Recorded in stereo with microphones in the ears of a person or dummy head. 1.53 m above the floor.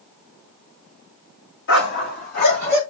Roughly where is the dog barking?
Left.